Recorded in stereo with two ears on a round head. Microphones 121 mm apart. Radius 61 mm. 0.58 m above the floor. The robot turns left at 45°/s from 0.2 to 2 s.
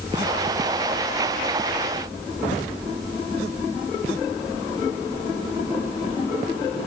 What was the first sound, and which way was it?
Only background noise.